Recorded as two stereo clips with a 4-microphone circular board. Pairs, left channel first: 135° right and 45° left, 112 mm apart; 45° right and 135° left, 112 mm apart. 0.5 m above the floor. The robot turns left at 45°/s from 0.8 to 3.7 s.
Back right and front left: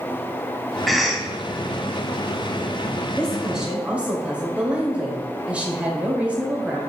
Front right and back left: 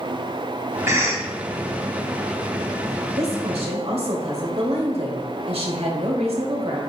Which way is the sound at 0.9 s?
135° left.